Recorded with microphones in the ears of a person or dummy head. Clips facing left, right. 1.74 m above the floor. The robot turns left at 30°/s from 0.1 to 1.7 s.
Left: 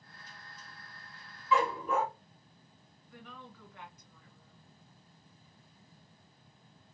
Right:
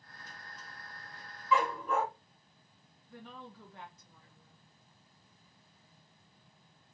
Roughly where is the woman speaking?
Right.